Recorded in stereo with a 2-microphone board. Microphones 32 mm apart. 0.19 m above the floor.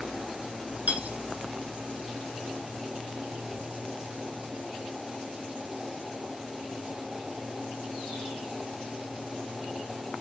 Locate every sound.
0.9 s cutlery clinking: 55° right (ahead or behind), 1.5 m